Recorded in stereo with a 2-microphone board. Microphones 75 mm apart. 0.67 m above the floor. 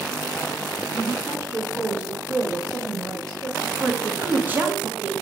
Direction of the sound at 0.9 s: 35° right (ahead or behind).